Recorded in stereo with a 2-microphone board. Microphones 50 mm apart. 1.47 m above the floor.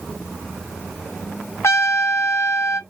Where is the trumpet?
75° left (ahead or behind), 0.8 m.